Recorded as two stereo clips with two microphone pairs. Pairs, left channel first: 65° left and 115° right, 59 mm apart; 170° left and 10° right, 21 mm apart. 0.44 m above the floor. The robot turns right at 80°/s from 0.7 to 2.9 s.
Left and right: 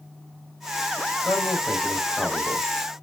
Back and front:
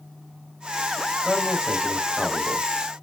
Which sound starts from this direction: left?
A man speaking, at 1.2 s.